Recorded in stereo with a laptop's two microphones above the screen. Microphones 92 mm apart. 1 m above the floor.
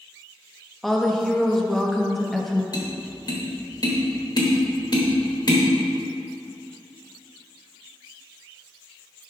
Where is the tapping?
45° left (ahead or behind), 1.0 m.